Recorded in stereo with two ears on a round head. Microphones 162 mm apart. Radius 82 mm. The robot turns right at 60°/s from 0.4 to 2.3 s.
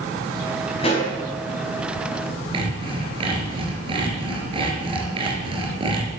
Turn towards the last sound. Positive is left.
turn(degrees=-30)  # may be behind; listen again after turning